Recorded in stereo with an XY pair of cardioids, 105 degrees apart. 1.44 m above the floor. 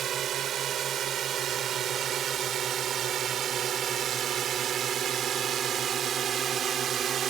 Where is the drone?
60° right; by 7.3 s 55° right.